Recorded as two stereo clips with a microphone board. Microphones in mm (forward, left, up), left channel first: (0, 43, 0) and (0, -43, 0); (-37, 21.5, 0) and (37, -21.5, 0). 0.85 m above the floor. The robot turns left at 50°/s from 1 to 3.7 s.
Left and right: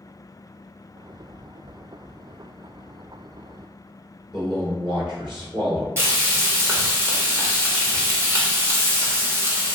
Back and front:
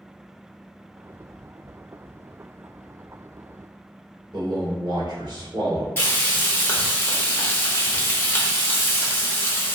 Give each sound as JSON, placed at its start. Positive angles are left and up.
{"t": 4.3, "sound": "a man speaking", "azimuth_deg": -60, "distance_m": 1.8}
{"t": 6.0, "sound": "frying", "azimuth_deg": -150, "distance_m": 1.1}